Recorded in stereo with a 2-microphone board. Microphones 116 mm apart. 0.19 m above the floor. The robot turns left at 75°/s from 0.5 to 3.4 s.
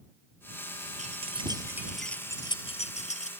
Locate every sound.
1.0 s keys jangling: 70° right (ahead or behind); by 3.3 s 70° left (ahead or behind)